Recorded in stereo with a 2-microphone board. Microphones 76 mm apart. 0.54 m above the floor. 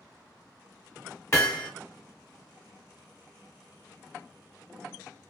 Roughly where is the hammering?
Left.